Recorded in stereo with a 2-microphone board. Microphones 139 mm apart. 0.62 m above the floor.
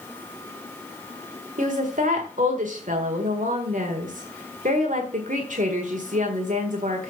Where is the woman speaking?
70° right (ahead or behind), 1.6 m.